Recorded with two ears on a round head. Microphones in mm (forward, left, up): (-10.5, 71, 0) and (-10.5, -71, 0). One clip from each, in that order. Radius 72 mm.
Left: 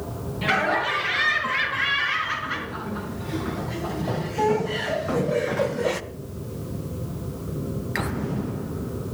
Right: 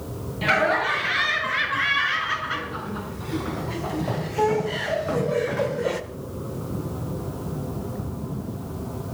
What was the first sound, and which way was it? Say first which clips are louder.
Laughter: right 2 dB; 20° right (ahead or behind).